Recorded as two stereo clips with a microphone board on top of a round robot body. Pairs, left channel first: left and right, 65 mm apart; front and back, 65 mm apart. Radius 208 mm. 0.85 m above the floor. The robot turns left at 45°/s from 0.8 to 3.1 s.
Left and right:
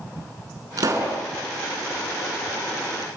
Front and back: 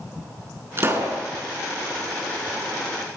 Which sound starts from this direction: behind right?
A pop, at 0.8 s.